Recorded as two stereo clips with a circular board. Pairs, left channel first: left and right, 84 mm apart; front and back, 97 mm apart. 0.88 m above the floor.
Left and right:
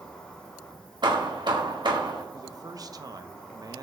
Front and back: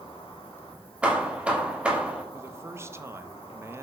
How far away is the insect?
About 1.7 m.